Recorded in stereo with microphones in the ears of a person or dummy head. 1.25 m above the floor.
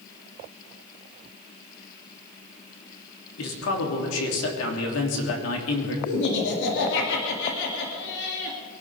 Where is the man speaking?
75° left (ahead or behind), 3 m.